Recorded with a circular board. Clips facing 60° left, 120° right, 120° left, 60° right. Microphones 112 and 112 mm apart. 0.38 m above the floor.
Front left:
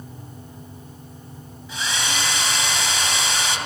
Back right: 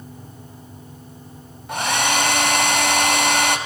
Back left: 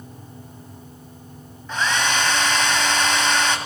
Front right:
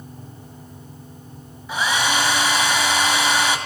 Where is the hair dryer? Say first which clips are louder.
Back right 7 dB, front right 1 dB; 140° right, 1.9 m.